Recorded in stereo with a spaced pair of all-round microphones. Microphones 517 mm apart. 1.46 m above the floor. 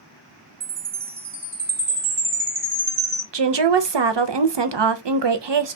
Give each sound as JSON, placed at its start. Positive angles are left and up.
{"t": 0.6, "sound": "a chime", "side_deg": -40, "distance_m": 1.2}
{"t": 3.3, "sound": "a woman speaking", "side_deg": -55, "distance_m": 0.5}